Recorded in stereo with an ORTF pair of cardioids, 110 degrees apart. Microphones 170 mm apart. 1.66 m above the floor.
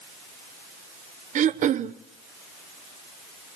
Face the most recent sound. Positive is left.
turn(degrees=-50)